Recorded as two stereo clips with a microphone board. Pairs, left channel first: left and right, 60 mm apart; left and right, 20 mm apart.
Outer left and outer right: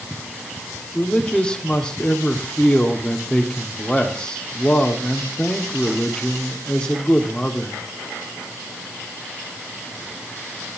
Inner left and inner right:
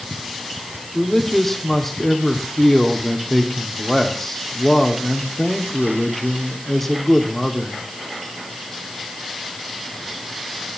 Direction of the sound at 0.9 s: 15° left (ahead or behind).